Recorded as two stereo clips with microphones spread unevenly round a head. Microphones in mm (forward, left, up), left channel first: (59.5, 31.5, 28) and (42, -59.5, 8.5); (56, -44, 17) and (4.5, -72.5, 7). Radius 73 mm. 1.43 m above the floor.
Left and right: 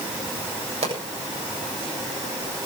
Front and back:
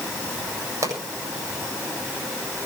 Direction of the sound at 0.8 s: 125° right.